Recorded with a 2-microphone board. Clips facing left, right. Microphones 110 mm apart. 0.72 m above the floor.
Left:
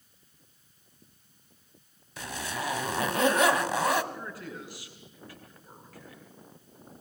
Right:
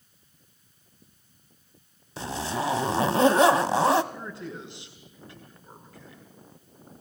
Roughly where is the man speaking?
Right.